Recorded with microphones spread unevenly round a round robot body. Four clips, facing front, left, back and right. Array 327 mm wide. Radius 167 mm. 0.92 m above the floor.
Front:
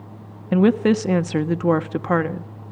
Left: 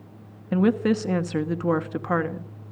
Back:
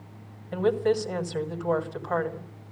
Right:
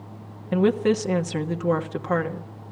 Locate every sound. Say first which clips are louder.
0.5 s a woman speaking: right 1 dB, front 7 dB; 5° left, 1.4 m